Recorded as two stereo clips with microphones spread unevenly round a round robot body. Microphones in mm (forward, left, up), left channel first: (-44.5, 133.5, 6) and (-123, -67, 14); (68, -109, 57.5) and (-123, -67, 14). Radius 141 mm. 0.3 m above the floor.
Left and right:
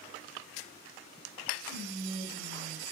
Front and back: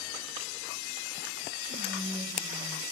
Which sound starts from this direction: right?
Whispering, at 1.7 s.